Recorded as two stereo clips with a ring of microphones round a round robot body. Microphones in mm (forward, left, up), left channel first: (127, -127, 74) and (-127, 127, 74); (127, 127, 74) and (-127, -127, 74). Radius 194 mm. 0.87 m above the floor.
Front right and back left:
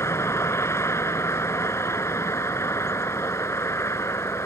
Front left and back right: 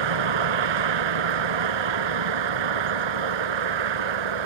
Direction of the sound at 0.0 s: 130° right.